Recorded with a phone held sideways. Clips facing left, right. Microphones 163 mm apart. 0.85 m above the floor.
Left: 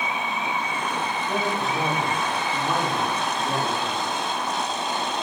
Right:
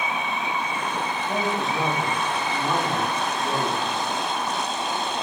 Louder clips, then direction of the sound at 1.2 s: Right 1 dB; centre (ahead or behind).